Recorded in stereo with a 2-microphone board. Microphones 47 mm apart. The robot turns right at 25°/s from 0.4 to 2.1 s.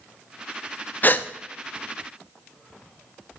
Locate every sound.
1.0 s a gasp: 45° left (ahead or behind), 0.5 m; by 1.3 s 40° left (ahead or behind), 0.5 m